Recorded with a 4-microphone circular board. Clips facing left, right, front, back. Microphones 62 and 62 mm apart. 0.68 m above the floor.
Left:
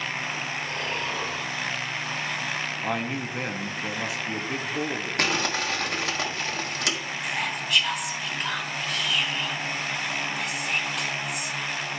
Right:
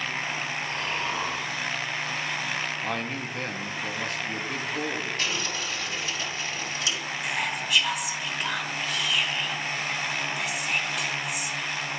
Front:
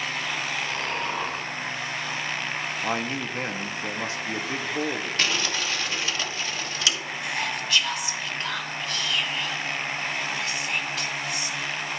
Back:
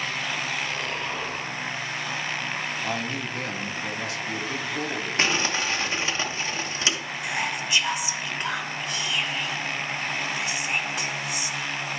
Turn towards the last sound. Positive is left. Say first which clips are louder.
# even, back 1 dB
turn(degrees=-170)